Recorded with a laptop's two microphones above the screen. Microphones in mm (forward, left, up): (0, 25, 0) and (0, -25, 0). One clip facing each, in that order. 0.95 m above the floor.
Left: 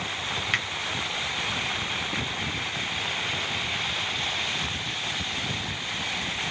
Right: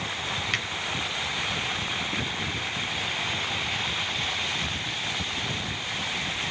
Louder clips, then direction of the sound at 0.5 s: Left 3 dB; 15° left (ahead or behind).